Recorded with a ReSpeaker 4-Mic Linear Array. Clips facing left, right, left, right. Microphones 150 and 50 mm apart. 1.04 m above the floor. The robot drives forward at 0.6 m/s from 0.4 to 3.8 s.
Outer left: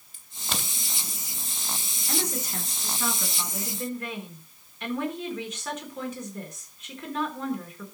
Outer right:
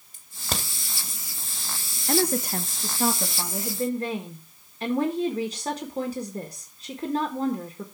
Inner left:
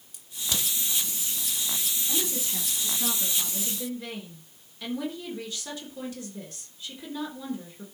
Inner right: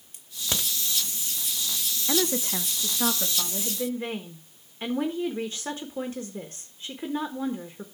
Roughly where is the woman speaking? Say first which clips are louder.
Outer right 8 dB, inner right 8 dB; right.